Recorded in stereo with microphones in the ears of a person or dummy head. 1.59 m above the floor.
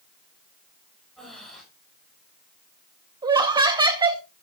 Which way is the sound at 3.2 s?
25° right (ahead or behind).